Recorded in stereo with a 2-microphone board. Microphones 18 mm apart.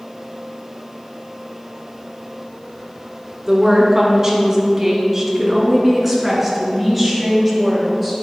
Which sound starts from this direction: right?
A woman speaking, at 3.5 s.